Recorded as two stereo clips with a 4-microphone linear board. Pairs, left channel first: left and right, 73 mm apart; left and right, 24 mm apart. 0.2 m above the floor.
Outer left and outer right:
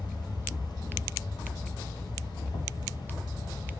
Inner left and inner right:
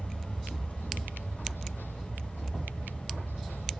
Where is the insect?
80° left, 1.3 m.